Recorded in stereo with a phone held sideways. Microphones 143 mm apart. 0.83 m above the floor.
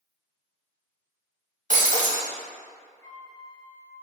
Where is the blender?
No blender in this recording.